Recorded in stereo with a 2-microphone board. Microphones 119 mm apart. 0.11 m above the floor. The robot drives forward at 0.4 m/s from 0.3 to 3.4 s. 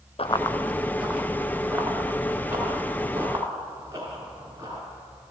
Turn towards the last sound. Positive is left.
turn(degrees=-30)  # may be behind; listen again after turning